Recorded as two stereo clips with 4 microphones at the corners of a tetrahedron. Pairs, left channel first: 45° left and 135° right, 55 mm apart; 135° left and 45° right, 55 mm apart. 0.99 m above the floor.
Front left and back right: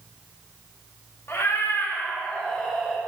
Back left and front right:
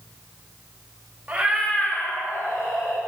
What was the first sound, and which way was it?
A cat meowing, 15° left.